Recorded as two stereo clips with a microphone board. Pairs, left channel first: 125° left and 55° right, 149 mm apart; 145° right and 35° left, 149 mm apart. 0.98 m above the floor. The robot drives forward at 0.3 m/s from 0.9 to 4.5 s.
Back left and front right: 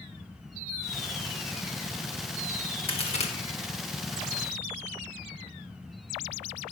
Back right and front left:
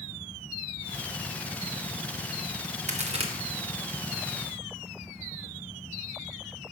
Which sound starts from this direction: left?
A crack, at 2.9 s.